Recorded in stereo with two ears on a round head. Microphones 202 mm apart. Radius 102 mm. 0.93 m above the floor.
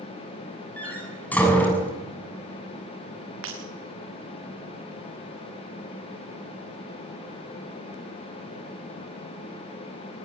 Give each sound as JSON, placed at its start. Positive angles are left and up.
{"t": 0.8, "sound": "a door slam", "side_deg": 5, "distance_m": 7.0}
{"t": 3.4, "sound": "breaking glass", "side_deg": -65, "distance_m": 5.5}